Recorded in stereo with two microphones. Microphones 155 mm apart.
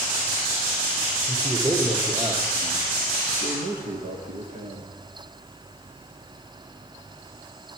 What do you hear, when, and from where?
1.3 s a man speaking: 25° right (ahead or behind), 3 m; by 4.9 s 60° right (ahead or behind), 3.5 m